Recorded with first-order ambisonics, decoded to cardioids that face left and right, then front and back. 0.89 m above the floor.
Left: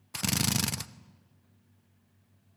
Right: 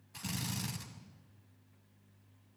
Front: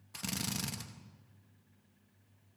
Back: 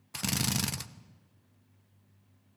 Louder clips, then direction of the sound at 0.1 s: Left 11 dB, back 7 dB; 120° left.